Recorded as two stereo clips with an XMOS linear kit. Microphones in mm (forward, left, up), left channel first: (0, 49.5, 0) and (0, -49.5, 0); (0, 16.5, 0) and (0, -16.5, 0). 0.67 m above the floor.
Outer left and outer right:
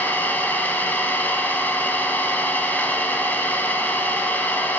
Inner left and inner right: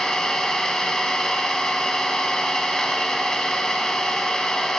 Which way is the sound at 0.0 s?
15° left (ahead or behind).